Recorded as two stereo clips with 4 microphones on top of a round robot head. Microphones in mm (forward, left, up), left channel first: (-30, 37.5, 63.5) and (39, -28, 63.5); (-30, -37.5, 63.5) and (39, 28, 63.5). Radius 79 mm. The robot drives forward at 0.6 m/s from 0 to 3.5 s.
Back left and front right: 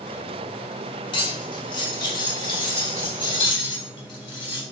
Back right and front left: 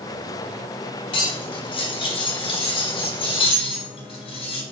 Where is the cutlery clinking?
Straight behind, 1.8 m.